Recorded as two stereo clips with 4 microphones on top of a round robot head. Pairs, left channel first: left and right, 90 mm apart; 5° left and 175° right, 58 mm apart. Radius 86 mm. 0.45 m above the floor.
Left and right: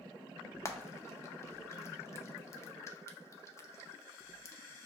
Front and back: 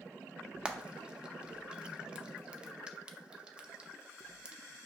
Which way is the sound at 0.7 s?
120° left.